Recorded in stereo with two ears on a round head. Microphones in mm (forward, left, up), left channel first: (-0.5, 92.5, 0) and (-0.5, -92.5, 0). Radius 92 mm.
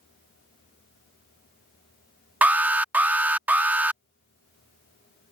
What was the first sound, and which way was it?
An alarm, 10° right (ahead or behind).